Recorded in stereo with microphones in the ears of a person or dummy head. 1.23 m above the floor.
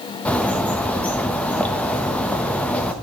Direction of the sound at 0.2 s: 15° left (ahead or behind).